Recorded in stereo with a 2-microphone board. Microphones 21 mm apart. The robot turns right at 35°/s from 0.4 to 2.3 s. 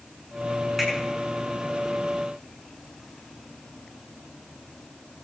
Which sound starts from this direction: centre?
A finger snap, at 0.8 s.